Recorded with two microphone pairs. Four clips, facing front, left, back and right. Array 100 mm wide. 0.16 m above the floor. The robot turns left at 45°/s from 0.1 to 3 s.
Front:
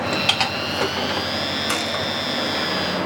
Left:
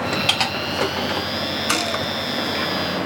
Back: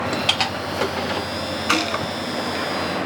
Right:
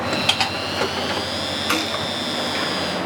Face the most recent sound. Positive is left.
turn(degrees=115)